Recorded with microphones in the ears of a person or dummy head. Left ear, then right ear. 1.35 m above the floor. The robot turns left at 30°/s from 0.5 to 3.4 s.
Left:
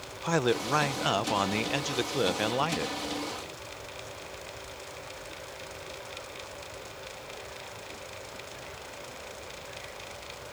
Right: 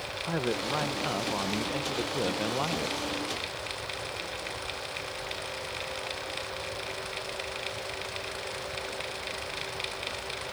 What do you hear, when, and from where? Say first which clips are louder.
0.2 s a man speaking: left 5 dB; 90° left; by 3.0 s 20° left